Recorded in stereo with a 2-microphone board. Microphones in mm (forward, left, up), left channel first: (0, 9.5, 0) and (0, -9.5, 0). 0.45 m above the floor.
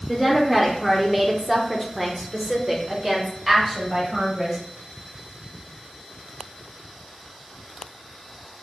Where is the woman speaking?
5° left (ahead or behind), 0.9 m; by 4.6 s 5° right (ahead or behind), 2.0 m.